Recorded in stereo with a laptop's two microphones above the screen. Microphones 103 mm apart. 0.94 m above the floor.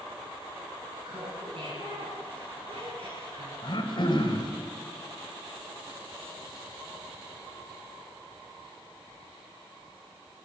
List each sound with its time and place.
1.0 s laughter: 75° right (ahead or behind), 8 m
3.6 s throat clearing: 55° left (ahead or behind), 3 m